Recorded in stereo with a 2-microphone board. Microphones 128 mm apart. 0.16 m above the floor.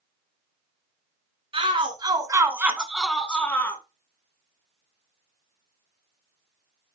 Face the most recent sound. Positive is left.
turn(degrees=15)  # may be behind; listen again after turning